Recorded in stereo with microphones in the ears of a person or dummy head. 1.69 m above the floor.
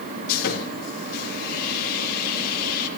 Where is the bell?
I don't hear a bell.